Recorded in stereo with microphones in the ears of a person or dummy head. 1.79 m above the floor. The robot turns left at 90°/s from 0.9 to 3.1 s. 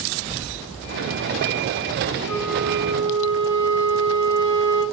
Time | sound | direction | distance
2.3 | a flute | straight ahead | 6.5 m